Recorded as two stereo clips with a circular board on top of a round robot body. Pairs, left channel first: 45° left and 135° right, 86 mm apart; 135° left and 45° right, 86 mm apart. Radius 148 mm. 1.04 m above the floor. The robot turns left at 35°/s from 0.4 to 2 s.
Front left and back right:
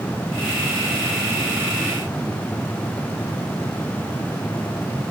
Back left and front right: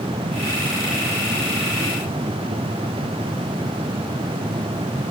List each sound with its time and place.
Only background noise.